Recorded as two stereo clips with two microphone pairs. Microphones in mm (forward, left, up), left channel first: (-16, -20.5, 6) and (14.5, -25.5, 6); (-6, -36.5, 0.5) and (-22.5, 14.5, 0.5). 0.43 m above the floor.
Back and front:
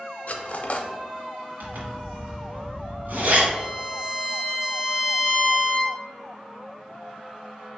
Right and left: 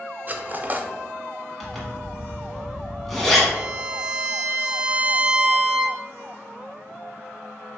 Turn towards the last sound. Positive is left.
turn(degrees=70)